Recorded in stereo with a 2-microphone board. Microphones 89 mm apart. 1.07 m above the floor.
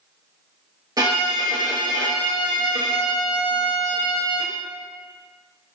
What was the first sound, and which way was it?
A violin, 45° right (ahead or behind).